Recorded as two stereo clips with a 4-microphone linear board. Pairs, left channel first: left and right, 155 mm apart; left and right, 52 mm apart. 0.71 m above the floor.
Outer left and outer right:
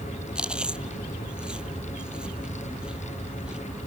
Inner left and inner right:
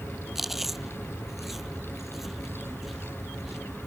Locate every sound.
0.3 s chewing: 5° right (ahead or behind)